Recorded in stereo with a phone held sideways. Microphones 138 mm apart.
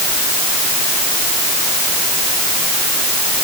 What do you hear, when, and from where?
Only background noise.